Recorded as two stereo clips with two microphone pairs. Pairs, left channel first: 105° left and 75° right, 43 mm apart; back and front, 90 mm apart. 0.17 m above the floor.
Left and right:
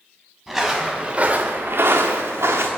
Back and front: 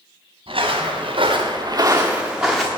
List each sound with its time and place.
0.5 s footsteps: 15° left, 1.5 m; by 2.7 s 95° right, 1.4 m